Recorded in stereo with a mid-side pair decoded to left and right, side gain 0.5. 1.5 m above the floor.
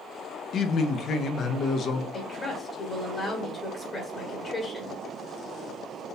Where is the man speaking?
55° left, 0.7 m.